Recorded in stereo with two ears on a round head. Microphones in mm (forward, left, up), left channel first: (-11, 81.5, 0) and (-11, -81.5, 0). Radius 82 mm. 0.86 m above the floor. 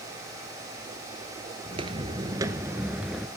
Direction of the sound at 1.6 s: 30° right (ahead or behind).